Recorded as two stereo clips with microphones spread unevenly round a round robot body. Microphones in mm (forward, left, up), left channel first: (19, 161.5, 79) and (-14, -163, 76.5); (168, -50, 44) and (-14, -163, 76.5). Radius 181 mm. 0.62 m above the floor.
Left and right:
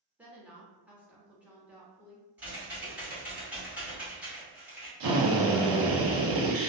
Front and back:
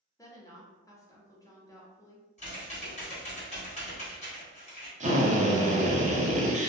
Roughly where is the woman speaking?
Ahead.